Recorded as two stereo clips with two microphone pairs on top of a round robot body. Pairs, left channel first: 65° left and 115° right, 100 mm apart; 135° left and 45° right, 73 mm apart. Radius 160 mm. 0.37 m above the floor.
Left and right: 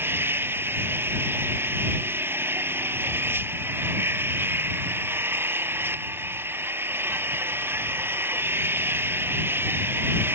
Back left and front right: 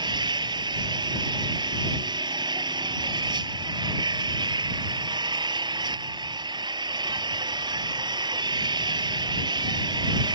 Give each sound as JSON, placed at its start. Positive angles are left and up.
{"t": 0.0, "sound": "an engine running", "azimuth_deg": -45}